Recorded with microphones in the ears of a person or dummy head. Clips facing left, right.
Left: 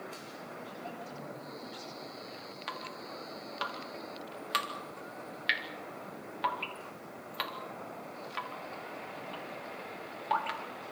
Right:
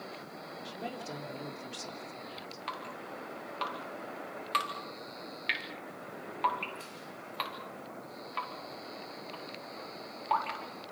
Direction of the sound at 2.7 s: 10° left (ahead or behind).